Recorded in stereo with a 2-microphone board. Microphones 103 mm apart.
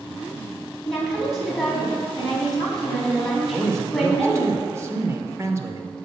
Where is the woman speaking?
Centre (ahead or behind), 4 m.